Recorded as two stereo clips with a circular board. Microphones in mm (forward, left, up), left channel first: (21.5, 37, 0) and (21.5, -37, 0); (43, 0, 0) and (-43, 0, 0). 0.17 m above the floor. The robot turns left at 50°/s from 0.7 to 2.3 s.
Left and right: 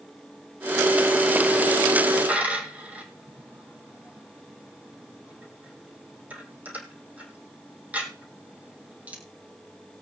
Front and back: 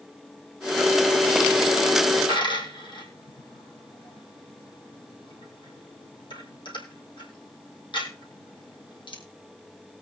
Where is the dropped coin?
20° right, 2.5 m.